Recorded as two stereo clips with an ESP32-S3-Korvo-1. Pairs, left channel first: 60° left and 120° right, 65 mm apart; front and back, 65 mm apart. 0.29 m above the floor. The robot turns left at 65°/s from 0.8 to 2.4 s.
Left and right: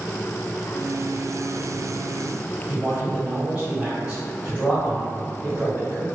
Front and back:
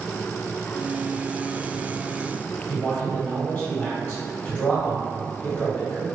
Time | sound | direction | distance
2.7 | a man speaking | 60° right | 1.6 m